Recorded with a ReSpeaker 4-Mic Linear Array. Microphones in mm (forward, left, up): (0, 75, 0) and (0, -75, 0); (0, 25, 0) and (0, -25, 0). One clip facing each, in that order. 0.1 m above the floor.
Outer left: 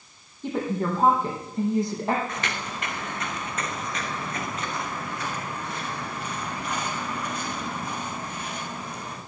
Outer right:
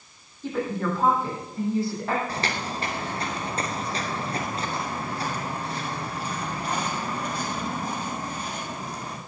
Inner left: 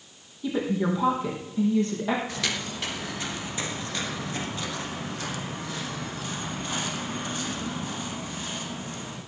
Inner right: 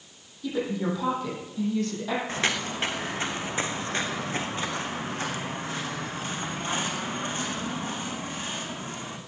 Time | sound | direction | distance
0.4 | a woman speaking | 20° left (ahead or behind) | 4.5 m
2.3 | footsteps | 35° right (ahead or behind) | 1.9 m